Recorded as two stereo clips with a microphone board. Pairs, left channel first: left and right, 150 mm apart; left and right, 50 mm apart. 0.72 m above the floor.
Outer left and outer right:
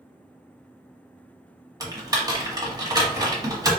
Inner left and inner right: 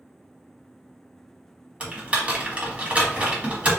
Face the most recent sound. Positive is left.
turn(degrees=-25)  # may be behind; listen again after turning